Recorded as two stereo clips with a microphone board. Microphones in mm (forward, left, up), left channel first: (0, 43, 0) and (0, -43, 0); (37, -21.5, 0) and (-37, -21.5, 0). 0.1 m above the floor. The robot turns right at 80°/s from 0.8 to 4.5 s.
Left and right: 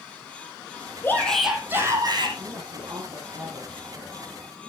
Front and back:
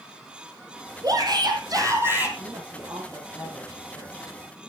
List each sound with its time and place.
1.0 s a shout: 150° left, 4 m; by 2.3 s 110° right, 4 m
2.4 s a woman speaking: 155° right, 7 m; by 4.2 s 10° right, 7 m